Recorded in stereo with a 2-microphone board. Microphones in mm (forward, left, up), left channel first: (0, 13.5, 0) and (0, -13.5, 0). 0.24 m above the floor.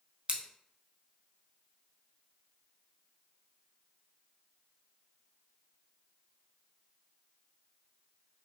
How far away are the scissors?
About 0.6 m.